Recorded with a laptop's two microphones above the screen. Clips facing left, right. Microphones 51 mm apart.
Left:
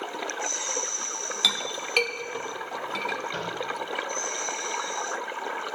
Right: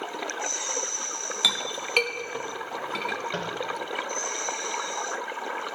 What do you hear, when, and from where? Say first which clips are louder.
1.4 s a clink: even; 10° right (ahead or behind), 0.6 m
3.3 s tapping: right 1 dB; 50° right (ahead or behind), 0.9 m